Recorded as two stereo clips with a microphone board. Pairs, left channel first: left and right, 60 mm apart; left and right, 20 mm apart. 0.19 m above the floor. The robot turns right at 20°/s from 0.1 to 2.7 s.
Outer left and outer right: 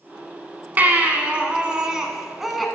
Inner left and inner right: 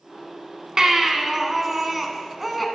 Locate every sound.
0.8 s a baby crying: 40° right, 0.8 m; by 2.6 s straight ahead, 0.8 m